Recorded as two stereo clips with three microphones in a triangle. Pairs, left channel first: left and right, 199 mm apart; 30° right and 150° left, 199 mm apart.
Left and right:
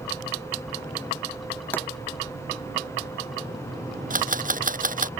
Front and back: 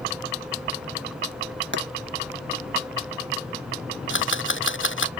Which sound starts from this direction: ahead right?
A camera shutter, at 4.1 s.